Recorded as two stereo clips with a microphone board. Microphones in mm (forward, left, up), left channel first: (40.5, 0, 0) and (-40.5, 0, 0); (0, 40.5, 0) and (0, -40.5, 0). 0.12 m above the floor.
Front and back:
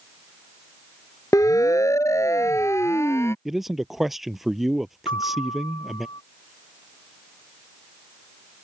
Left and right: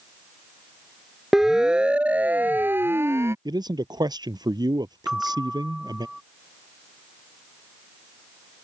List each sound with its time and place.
1.3 s a siren: 5° right; by 3.4 s 45° right
3.5 s a man speaking: 95° right
5.1 s a bell: 5° right